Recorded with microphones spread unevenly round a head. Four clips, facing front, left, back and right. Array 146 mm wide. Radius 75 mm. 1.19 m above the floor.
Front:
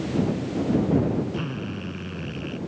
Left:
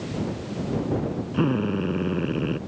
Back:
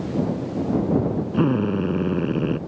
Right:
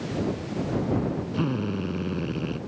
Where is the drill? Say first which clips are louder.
Left 7 dB, back 11 dB; 160° left.